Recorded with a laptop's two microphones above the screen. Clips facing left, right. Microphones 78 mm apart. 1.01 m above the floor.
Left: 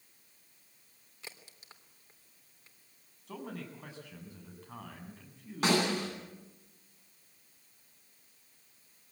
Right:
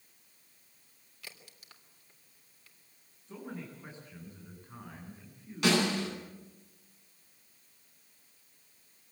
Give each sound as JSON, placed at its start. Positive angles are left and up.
{"t": 1.2, "sound": "a crack", "side_deg": 20, "distance_m": 3.0}
{"t": 3.3, "sound": "a man speaking", "side_deg": 75, "distance_m": 8.0}
{"t": 5.6, "sound": "a snare drum", "side_deg": 35, "distance_m": 10.0}